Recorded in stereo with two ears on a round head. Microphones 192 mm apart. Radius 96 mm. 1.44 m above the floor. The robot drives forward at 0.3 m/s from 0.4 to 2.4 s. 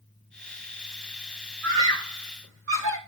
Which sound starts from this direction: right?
A scream, at 1.6 s.